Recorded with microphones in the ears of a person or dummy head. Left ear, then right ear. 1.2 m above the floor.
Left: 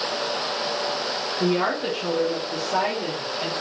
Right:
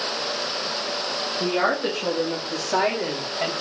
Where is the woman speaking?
Centre (ahead or behind), 1.9 m; by 3.5 s 65° right (ahead or behind), 2 m.